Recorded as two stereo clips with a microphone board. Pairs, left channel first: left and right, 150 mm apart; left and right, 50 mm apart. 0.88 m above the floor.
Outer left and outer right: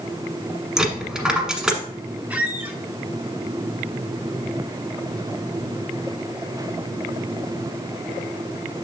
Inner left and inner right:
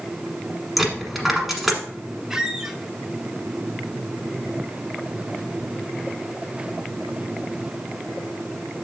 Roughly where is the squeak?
Centre.